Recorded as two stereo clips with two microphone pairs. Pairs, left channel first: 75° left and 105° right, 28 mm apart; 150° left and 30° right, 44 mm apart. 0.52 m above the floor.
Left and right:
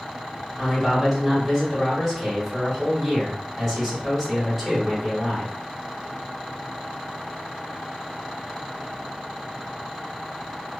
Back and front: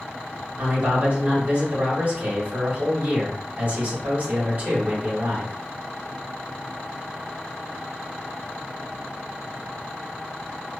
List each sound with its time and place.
0.6 s a man speaking: 35° right, 1.3 m